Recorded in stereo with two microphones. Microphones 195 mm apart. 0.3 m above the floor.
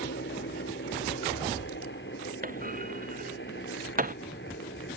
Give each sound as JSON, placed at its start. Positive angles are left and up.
{"t": 0.0, "sound": "a helicopter", "side_deg": 70}
{"t": 2.4, "sound": "a clunk", "side_deg": -45}